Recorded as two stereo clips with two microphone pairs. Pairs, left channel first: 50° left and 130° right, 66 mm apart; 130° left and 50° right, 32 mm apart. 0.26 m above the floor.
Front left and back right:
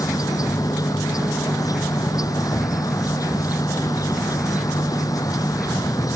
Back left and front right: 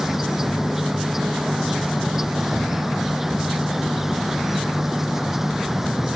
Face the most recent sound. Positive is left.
turn(degrees=25)